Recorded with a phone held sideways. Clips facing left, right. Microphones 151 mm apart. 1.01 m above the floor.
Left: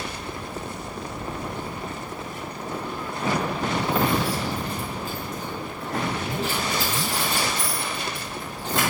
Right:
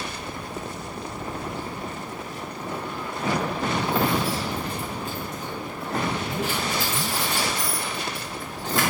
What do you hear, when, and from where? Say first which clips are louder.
1.2 s keys jangling: even; 60° left (ahead or behind), 4 m; by 8.8 s 20° left (ahead or behind), 8 m